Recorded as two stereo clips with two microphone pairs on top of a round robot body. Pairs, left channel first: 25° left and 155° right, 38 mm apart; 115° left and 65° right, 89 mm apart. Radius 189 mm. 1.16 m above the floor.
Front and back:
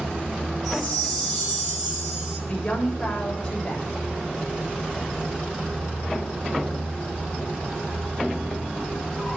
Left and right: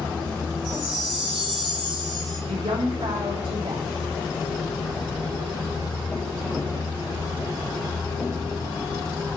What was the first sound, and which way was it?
A chime, 50° right.